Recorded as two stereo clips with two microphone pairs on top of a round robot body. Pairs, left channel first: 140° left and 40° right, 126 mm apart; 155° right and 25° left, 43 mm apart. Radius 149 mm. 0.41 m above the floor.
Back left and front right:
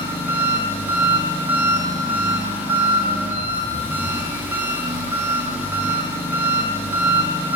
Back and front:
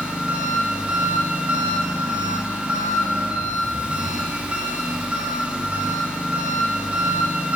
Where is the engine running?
5° right, 1.0 m.